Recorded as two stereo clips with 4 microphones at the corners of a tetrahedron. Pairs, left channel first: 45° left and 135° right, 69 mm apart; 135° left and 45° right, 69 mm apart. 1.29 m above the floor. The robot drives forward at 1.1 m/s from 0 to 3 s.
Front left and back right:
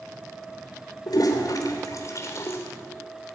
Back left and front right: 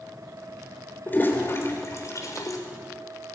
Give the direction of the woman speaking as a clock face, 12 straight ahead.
No woman speaking in this recording.